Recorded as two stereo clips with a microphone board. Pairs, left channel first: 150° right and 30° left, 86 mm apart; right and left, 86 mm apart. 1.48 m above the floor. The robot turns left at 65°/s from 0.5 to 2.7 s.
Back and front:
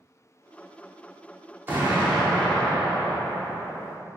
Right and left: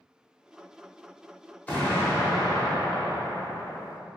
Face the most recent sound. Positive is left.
turn(degrees=-90)